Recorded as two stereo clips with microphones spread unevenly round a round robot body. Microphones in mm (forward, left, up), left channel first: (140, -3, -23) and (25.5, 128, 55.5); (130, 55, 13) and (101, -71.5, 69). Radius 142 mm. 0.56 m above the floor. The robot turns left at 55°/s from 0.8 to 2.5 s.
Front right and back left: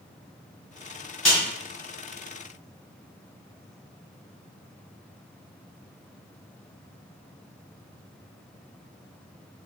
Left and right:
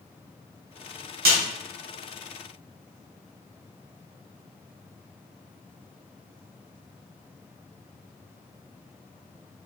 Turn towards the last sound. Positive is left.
turn(degrees=165)